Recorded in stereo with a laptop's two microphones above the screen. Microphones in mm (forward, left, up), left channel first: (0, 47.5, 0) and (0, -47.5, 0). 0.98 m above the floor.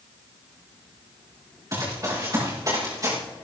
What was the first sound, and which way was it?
Running footsteps, 40° right (ahead or behind).